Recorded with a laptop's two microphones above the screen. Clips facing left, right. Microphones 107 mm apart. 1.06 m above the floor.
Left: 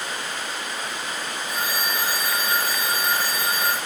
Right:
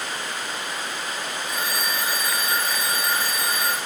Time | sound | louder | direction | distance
1.5 | a phone ringing | left 1 dB | 35° left (ahead or behind) | 3 m